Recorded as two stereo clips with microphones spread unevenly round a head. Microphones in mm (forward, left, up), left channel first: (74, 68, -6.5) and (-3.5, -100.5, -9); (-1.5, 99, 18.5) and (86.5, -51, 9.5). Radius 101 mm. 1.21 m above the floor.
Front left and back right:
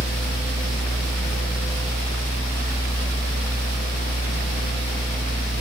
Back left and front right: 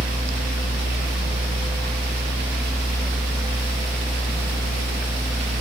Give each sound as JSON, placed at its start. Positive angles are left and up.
{"t": 0.0, "sound": "a fan", "azimuth_deg": 0, "distance_m": 1.2}